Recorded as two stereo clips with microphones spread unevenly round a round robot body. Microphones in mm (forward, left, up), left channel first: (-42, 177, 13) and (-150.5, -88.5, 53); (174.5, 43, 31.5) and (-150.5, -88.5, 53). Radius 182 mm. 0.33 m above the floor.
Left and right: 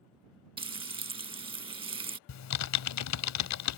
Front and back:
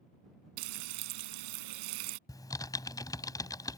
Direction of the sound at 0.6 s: 175° left.